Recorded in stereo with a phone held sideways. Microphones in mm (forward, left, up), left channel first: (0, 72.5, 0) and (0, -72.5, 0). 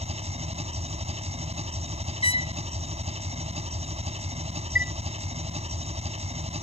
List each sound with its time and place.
0.0 s an engine running: 45° right (ahead or behind)
2.2 s a trumpet: 40° left (ahead or behind)
4.8 s a chime: 80° left